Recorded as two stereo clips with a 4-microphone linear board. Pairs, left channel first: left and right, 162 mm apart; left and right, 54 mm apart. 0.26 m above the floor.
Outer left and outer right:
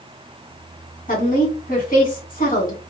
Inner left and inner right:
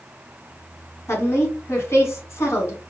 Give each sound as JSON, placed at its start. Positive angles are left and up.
{"t": 1.1, "sound": "a woman speaking", "side_deg": 55, "distance_m": 1.9}